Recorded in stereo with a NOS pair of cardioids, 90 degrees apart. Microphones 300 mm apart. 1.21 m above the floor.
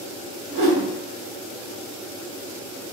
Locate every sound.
0.5 s a whoosh: 50° right, 0.9 m